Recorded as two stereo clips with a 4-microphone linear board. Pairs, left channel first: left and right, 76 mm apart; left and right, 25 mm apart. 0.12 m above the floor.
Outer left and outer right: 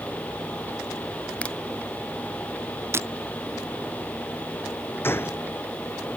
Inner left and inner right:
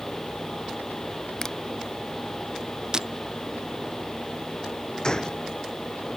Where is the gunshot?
30° left (ahead or behind).